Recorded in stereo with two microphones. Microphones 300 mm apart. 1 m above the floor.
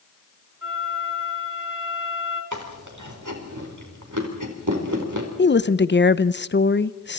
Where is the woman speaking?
35° left (ahead or behind), 0.7 m.